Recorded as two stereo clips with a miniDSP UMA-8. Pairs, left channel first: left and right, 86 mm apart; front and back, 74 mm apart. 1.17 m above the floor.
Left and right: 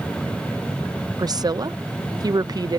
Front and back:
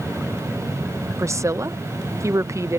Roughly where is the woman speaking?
Behind right.